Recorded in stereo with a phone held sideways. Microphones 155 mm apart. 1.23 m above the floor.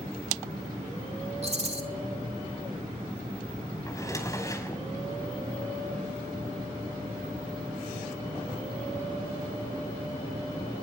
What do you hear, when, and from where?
1.4 s a rattle: 45° right (ahead or behind), 3 m
3.9 s a drawer: 20° left (ahead or behind), 5 m